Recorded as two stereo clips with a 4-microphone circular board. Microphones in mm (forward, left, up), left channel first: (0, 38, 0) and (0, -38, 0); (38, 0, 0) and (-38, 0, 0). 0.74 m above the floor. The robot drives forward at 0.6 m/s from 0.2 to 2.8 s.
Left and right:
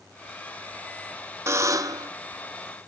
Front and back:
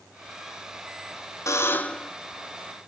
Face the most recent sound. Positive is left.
turn(degrees=-140)